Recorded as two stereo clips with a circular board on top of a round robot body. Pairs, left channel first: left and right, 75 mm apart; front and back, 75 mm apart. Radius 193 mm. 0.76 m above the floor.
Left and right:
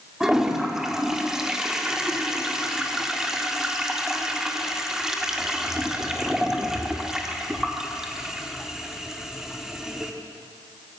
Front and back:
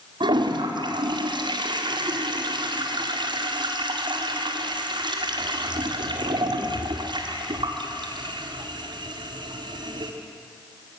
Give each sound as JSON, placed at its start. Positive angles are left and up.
{"t": 0.2, "sound": "a toilet flushing", "azimuth_deg": -175, "distance_m": 2.0}